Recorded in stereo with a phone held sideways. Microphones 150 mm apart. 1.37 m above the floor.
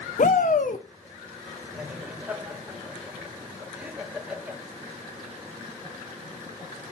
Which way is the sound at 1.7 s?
10° right (ahead or behind).